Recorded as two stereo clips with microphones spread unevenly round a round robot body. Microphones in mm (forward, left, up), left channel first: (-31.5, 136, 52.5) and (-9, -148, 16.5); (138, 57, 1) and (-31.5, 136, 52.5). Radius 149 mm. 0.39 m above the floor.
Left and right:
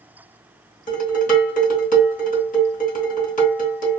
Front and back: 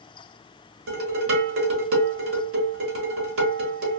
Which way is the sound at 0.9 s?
160° left.